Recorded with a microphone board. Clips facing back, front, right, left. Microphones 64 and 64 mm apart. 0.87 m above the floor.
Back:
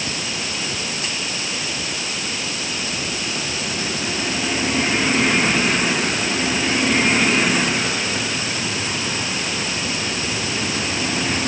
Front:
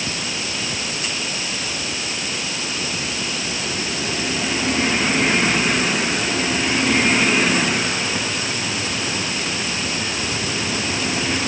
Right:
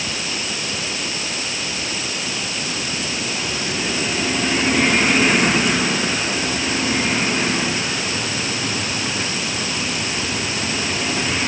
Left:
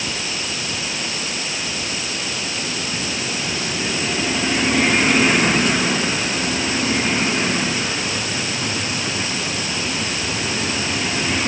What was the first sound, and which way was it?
Only background noise.